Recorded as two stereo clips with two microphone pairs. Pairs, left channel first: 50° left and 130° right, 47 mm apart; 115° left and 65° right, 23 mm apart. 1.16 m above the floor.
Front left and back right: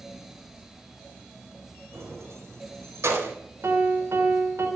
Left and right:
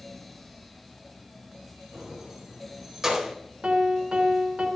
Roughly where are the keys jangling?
Behind right.